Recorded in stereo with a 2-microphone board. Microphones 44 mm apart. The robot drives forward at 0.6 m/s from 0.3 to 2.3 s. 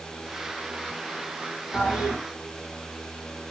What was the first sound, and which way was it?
A toilet flushing, 35° left (ahead or behind).